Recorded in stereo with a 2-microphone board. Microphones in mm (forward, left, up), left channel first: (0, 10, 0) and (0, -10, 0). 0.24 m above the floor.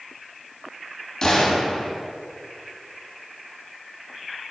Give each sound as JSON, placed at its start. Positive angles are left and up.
{"t": 1.2, "sound": "a gunshot", "side_deg": 25, "distance_m": 1.4}